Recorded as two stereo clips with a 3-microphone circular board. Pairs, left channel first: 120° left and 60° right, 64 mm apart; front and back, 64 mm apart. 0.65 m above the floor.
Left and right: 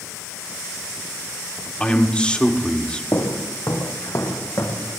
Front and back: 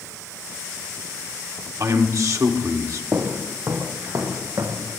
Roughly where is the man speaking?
Behind.